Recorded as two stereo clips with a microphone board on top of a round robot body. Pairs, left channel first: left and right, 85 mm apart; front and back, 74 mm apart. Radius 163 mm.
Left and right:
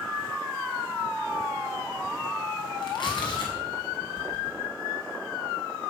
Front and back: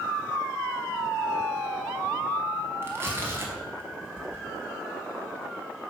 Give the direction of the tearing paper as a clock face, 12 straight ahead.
8 o'clock.